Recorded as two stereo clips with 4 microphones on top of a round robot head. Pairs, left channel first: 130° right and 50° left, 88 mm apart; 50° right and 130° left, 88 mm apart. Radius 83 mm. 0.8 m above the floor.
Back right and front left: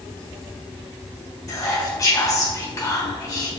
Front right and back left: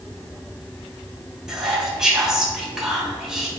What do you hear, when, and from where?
1.5 s whispering: 150° right, 1.1 m